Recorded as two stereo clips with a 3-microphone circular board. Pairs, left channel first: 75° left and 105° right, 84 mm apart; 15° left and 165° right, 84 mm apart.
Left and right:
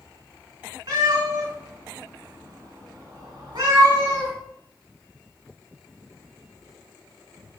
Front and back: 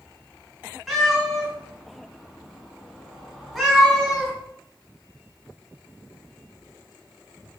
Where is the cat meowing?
75° right, 1.4 m.